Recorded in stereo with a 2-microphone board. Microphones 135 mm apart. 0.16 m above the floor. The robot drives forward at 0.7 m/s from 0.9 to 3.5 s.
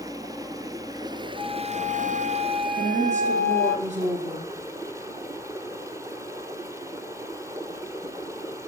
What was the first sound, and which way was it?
Running water, 25° right (ahead or behind).